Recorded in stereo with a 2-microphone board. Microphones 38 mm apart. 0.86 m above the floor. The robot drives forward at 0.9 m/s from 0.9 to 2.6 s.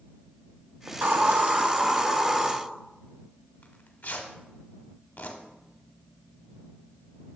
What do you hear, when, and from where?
0.9 s a hiss: 80° right, 0.8 m; by 2.5 s 25° right (ahead or behind), 1.7 m
3.6 s tearing paper: 60° left (ahead or behind), 1.0 m